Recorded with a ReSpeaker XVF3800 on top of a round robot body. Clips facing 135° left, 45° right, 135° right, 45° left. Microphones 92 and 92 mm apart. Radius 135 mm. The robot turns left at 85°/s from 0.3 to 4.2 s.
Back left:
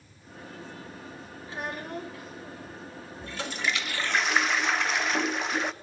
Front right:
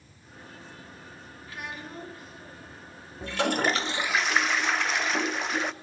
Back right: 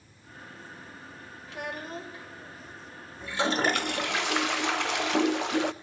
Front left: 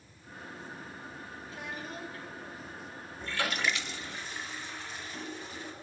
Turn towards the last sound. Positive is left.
turn(degrees=-135)